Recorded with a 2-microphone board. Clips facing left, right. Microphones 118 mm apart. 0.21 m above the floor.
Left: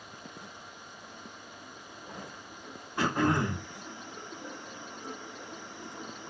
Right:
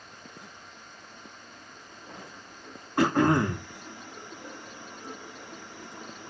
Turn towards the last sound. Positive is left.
turn(degrees=-75)  # may be behind; listen again after turning